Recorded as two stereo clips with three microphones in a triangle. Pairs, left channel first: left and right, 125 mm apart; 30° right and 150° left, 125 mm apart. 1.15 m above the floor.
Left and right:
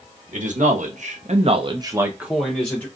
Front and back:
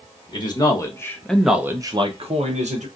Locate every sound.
0.3 s a man speaking: 85° right, 1.2 m; by 2.9 s 165° left, 1.0 m